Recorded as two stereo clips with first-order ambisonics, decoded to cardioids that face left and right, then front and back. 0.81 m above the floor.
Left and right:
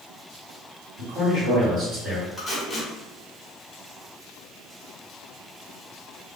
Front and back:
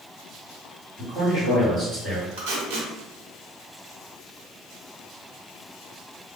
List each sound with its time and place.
1.0 s a man speaking: 120° right, 2.0 m
2.4 s tape being pulled: straight behind, 1.0 m